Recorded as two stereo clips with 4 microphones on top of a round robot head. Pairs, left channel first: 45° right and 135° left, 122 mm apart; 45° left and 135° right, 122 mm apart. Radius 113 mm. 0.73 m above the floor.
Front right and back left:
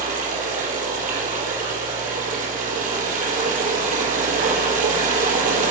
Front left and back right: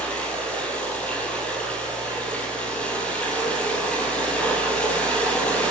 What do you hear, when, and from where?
0.0 s running water: 125° left, 3.5 m